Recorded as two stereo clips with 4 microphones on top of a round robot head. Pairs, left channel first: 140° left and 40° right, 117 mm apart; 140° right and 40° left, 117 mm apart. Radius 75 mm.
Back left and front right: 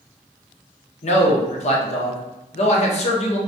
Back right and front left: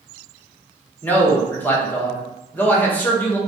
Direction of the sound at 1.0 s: 145° left.